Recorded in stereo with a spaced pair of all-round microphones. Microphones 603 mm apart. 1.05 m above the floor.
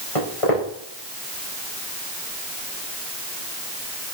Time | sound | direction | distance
0.1 | footsteps | 60° left (ahead or behind) | 4.5 m